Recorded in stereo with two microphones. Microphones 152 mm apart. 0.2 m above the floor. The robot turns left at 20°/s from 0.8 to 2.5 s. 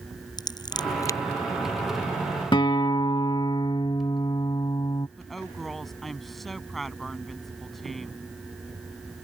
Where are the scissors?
30° left (ahead or behind); by 1.2 s 20° left (ahead or behind).